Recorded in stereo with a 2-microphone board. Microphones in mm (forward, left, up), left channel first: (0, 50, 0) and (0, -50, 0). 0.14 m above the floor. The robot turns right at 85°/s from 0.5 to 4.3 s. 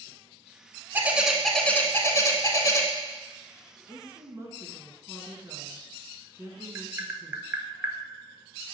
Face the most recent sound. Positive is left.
turn(degrees=-25)  # may be behind; listen again after turning